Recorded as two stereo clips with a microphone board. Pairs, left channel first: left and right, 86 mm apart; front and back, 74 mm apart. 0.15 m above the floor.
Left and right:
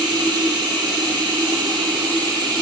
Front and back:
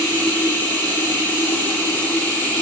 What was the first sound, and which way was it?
Running water, 65° right.